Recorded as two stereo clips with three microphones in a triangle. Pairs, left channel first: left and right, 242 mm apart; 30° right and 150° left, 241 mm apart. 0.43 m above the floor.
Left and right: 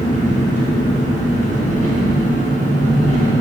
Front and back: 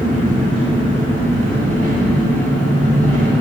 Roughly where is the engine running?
Behind left.